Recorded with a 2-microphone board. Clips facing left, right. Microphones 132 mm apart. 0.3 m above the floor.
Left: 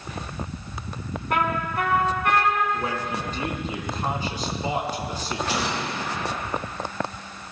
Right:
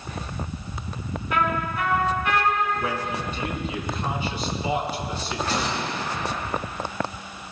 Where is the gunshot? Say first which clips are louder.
Right 1 dB; 15° left (ahead or behind), 5 m.